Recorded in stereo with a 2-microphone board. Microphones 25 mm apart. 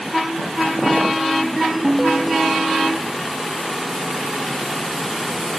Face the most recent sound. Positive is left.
turn(degrees=-5)  # may be behind; listen again after turning